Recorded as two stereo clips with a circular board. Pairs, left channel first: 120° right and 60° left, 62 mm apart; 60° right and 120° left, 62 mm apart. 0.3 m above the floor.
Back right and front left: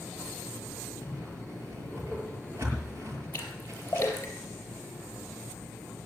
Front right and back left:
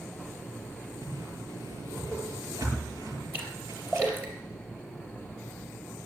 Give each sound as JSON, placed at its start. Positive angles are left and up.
{"t": 1.0, "sound": "a whoosh", "azimuth_deg": 100, "distance_m": 6.5}
{"t": 3.3, "sound": "a splash", "azimuth_deg": 180, "distance_m": 3.5}